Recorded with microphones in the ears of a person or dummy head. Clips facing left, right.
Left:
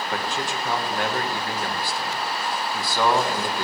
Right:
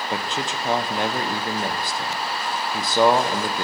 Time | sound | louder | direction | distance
0.1 | a man speaking | right 1 dB | 20° right (ahead or behind) | 0.8 m